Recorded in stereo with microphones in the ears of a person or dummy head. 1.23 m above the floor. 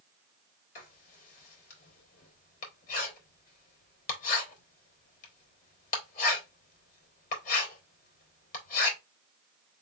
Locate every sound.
0.8 s writing: 40° left (ahead or behind), 2.5 m